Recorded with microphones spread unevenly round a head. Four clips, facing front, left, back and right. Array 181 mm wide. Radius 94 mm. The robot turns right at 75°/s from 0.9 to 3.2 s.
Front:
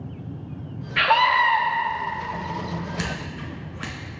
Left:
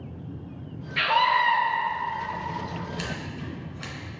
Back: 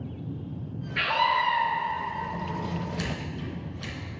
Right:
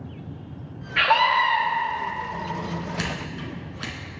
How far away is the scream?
About 2.5 m.